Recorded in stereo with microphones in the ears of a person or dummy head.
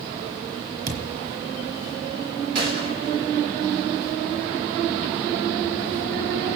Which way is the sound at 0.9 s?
55° right (ahead or behind).